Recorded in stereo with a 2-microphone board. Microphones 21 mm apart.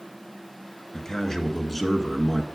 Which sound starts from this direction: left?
A man speaking, at 0.9 s.